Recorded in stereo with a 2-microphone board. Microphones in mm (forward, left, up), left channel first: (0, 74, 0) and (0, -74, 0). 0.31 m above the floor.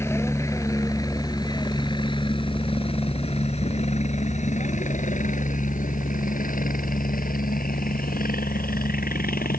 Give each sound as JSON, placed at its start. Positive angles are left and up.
{"t": 0.0, "sound": "a helicopter", "side_deg": 20}